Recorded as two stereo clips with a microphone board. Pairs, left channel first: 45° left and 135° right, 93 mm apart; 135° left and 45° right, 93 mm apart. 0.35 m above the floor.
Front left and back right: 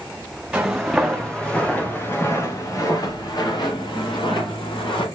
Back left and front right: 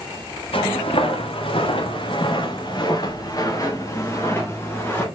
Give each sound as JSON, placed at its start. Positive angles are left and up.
{"t": 0.5, "sound": "footsteps", "azimuth_deg": 140, "distance_m": 3.5}